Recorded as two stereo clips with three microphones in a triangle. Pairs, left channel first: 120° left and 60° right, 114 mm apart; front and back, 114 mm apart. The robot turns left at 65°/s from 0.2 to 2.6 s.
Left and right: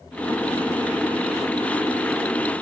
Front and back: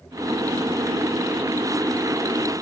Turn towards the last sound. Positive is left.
No sound to turn to.